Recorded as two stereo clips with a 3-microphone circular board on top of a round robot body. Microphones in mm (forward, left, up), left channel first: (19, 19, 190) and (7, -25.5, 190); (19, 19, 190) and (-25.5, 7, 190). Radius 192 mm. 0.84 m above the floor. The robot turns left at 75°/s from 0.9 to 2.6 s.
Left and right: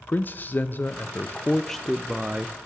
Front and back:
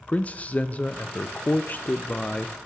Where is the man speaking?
55° left, 0.7 m; by 2.7 s 70° right, 0.7 m.